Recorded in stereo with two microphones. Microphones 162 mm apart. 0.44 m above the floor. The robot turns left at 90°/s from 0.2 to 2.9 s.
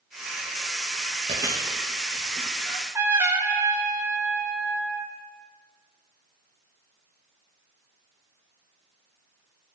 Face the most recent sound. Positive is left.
turn(degrees=-15)  # may be behind; listen again after turning